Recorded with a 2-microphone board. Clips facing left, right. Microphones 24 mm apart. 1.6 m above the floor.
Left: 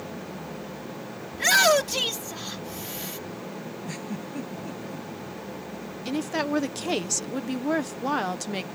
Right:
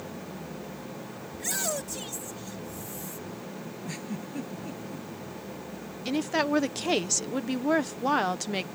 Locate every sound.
1.3 s a shout: 70° left (ahead or behind)
3.8 s a giggle: centre (ahead or behind)
6.0 s a woman speaking: 10° right (ahead or behind)